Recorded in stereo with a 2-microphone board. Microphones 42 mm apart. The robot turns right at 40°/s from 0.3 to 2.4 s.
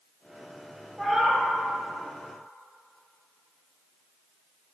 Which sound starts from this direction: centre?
A cat meowing, at 1.0 s.